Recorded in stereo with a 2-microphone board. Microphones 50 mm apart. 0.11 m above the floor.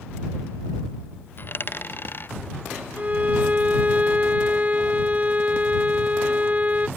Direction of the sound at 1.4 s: 45° left (ahead or behind).